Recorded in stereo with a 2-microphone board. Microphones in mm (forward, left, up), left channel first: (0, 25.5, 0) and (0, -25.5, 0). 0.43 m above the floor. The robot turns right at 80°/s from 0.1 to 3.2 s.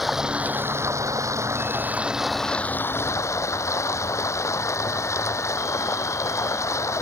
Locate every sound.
0.0 s running water: 175° right; by 7.0 s 70° left